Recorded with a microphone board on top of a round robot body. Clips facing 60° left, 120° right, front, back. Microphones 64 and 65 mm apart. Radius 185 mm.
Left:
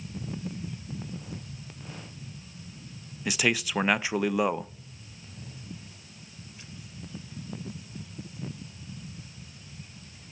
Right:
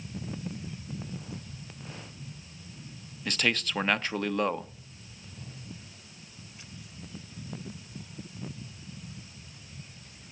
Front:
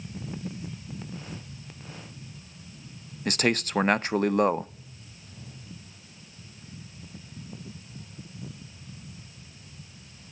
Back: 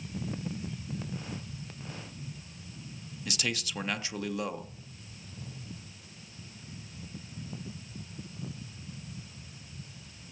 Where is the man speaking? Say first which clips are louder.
Left 2 dB, front 10 dB; 20° right, 0.7 m.